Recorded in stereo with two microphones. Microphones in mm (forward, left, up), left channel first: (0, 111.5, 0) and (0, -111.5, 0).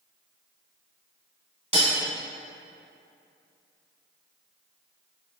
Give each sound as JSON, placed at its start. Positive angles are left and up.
{"t": 1.7, "sound": "cutlery clinking", "side_deg": -30, "distance_m": 1.1}